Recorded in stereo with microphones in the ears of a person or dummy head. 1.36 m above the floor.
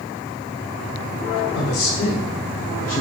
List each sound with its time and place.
1.6 s a man speaking: 85° left, 1.4 m; by 3.0 s 40° left (ahead or behind), 0.6 m